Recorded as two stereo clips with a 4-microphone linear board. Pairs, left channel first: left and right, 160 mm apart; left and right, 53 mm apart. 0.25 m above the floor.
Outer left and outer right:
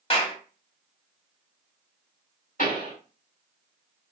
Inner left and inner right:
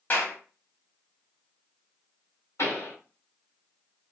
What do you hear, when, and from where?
0.1 s a clap: 35° left (ahead or behind), 0.9 m
2.6 s a pop: 60° left (ahead or behind), 2.5 m